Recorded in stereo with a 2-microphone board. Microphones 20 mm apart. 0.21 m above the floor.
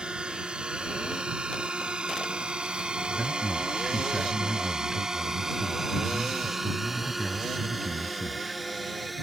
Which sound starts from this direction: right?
A drone, at 0.0 s.